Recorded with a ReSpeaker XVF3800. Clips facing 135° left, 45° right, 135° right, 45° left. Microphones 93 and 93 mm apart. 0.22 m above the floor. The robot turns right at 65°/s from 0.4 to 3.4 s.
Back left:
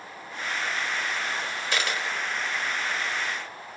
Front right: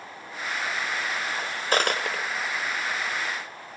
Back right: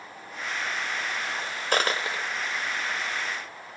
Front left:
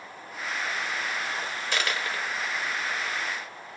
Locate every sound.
1.7 s a dropped coin: 95° right, 1.0 m; by 2.5 s 40° right, 1.0 m